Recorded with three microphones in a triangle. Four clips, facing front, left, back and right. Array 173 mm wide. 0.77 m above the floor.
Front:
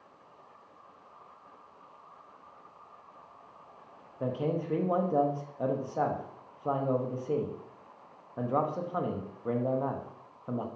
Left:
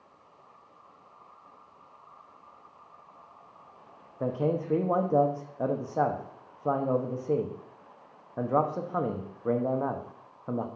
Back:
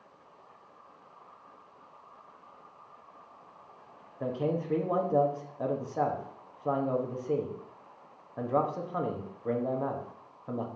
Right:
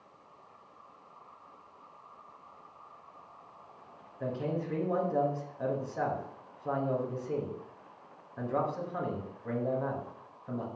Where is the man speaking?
95° left, 1.2 m.